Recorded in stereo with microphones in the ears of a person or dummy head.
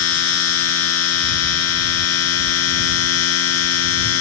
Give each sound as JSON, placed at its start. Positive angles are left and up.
{"t": 0.0, "sound": "a machine running", "side_deg": 85}